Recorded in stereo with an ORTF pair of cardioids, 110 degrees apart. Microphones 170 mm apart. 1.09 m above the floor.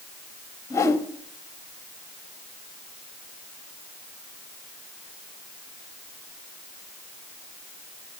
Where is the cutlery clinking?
I don't hear cutlery clinking.